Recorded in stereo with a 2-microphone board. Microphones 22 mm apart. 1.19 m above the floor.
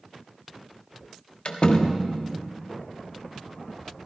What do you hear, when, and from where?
1.4 s a door slam: 50° left (ahead or behind), 1.2 m